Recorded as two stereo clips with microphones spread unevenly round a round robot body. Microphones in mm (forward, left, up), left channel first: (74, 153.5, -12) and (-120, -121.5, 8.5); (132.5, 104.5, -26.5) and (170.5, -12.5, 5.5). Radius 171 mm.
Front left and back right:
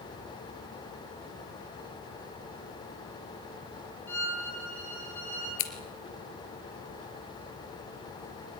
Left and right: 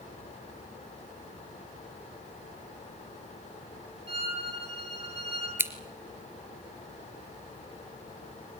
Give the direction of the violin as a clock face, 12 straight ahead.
1 o'clock.